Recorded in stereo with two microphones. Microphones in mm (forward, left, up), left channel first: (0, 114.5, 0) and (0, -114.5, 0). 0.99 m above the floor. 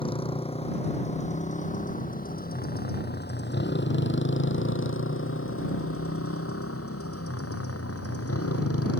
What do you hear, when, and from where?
0.0 s a motorcycle: 25° left (ahead or behind); by 9.0 s 85° left